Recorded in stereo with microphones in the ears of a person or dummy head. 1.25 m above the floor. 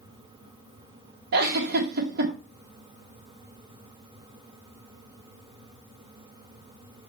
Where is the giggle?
70° right (ahead or behind), 2.0 m.